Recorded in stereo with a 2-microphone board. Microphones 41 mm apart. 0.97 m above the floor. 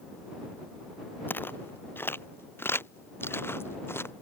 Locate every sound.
1.3 s footsteps: 55° left (ahead or behind); by 4.1 s 75° left (ahead or behind)